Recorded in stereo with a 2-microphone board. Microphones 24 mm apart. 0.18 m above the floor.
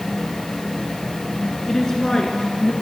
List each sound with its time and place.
1.7 s a woman speaking: 15° left (ahead or behind), 2 m; by 2.7 s 40° left (ahead or behind), 3 m